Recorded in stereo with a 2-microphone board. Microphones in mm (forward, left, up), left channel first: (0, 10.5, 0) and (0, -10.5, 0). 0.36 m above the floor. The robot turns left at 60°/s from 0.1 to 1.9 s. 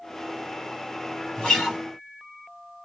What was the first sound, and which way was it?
A guitar, 50° left (ahead or behind).